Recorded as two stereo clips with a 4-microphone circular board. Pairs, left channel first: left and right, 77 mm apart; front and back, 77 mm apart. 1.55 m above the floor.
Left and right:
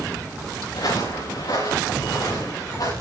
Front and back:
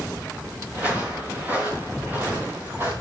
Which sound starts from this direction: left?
Footsteps, at 0.7 s.